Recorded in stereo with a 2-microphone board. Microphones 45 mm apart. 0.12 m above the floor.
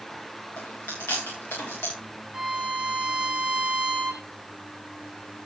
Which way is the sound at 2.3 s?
20° right (ahead or behind).